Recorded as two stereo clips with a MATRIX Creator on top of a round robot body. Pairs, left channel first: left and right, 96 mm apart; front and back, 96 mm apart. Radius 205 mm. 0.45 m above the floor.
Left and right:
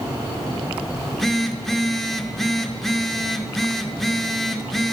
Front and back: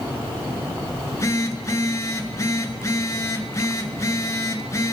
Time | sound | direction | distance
1.0 | a phone buzzing | 5° left | 1.3 m